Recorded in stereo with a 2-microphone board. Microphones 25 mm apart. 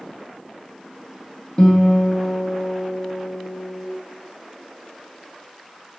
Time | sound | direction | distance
1.6 | a guitar | 30° left (ahead or behind) | 0.6 m